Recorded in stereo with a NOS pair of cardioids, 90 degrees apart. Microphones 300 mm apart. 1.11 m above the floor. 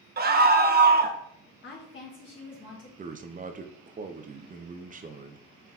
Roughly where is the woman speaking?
Ahead left.